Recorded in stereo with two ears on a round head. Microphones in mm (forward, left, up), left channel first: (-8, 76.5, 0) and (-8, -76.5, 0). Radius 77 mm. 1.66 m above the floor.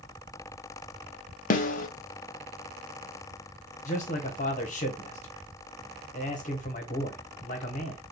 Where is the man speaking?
45° left (ahead or behind), 1.0 m.